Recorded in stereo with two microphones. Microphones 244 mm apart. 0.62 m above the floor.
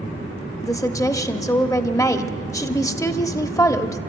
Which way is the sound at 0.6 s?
15° left (ahead or behind).